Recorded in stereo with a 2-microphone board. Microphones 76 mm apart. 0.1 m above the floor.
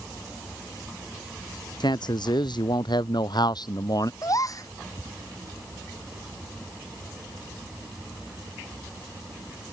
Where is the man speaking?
75° left (ahead or behind); by 4.1 s 55° left (ahead or behind).